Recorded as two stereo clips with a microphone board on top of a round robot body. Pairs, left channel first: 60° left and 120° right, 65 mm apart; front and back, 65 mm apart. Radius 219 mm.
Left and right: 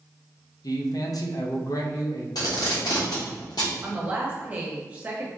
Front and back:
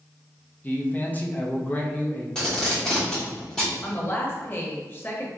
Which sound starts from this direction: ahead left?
A man speaking, at 0.6 s.